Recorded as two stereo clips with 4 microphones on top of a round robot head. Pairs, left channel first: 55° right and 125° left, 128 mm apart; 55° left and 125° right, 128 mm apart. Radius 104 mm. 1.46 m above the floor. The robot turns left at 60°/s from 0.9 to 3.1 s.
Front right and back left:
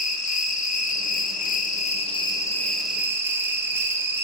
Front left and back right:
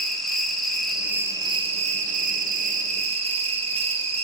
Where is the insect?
30° right, 0.7 m; by 4.2 s 165° right, 0.7 m.